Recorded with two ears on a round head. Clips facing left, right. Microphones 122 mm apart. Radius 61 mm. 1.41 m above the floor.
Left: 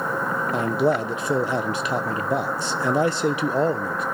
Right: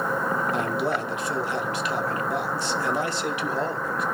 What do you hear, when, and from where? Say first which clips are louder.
0.5 s a man speaking: left 5 dB; 75° left (ahead or behind), 1.0 m